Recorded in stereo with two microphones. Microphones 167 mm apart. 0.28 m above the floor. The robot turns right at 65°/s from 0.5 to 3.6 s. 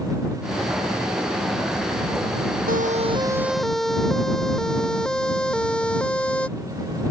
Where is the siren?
60° right (ahead or behind); by 6.5 s 5° left (ahead or behind).